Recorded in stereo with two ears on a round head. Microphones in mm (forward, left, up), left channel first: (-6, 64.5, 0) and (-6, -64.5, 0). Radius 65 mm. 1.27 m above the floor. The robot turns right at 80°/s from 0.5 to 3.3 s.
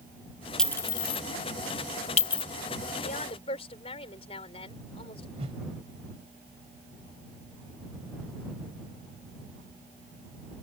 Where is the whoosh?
40° right (ahead or behind).